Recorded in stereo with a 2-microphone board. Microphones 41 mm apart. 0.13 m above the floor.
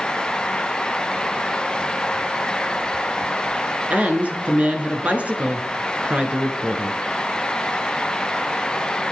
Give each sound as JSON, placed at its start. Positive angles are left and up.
{"t": 3.9, "sound": "a woman speaking", "side_deg": -40, "distance_m": 1.4}